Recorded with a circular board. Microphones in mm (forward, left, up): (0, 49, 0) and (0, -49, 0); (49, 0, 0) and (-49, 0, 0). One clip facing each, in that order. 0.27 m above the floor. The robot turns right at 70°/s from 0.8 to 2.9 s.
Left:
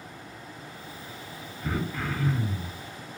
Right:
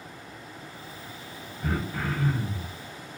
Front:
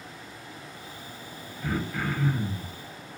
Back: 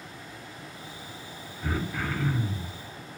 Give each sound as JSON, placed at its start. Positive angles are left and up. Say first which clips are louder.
{"t": 1.6, "sound": "throat clearing", "louder": "right 1 dB, front 1 dB", "azimuth_deg": -110, "distance_m": 1.1}